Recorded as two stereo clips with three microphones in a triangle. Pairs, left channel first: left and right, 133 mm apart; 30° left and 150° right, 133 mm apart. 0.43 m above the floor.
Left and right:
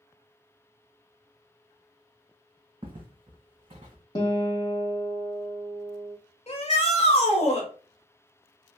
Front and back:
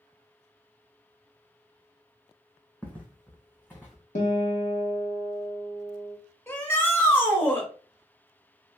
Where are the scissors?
No scissors in this recording.